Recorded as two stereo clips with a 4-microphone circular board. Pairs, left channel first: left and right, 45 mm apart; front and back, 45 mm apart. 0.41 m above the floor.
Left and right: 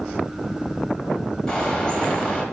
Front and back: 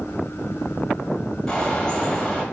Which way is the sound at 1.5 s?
55° left.